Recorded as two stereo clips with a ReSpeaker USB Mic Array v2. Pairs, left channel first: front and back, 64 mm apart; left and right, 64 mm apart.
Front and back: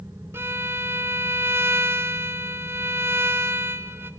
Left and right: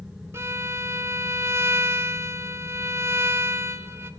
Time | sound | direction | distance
0.3 | a violin | 135° right | 0.6 m